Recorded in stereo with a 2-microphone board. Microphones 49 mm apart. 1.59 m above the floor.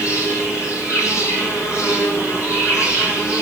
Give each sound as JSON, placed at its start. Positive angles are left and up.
{"t": 0.0, "sound": "an insect", "side_deg": 70, "distance_m": 9.0}